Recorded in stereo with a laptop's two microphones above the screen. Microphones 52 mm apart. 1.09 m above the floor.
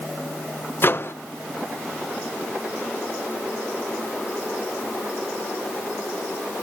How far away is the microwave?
About 0.7 m.